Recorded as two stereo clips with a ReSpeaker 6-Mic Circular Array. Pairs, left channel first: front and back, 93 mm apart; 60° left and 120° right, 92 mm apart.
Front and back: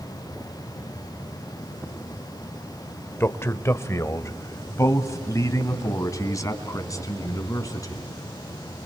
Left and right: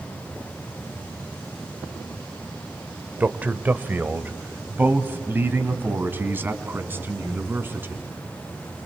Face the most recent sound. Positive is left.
turn(degrees=-50)